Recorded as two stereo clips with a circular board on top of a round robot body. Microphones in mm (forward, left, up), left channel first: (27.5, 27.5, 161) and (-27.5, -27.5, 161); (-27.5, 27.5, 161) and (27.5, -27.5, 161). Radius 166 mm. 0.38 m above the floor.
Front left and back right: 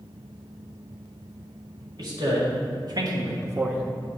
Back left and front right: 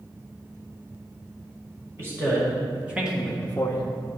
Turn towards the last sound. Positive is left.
turn(degrees=135)